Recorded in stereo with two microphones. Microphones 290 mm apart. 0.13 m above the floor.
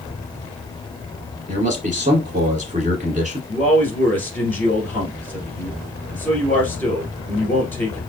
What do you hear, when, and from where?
1.5 s a man speaking: 25° right (ahead or behind), 1.5 m
3.5 s a man speaking: 5° left (ahead or behind), 2 m